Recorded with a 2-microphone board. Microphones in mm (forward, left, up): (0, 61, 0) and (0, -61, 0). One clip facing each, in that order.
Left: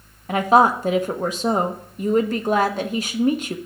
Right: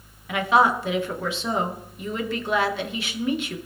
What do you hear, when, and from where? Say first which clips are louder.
0.3 s a woman speaking: left 4 dB; 40° left (ahead or behind), 1.0 m